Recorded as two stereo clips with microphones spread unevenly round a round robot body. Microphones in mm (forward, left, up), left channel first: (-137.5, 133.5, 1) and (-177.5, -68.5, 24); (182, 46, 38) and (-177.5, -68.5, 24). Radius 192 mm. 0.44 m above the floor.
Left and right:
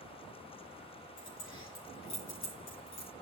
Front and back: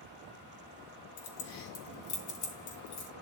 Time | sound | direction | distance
1.2 | keys jangling | 35° left | 2.5 m